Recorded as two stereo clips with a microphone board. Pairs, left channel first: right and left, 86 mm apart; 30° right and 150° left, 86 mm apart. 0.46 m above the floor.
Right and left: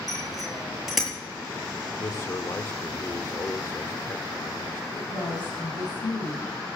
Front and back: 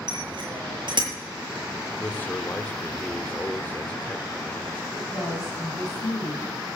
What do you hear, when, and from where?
0.1 s a bicycle bell: straight behind, 7.5 m
2.0 s a man speaking: 85° right, 0.9 m
4.9 s a woman speaking: 65° right, 3.5 m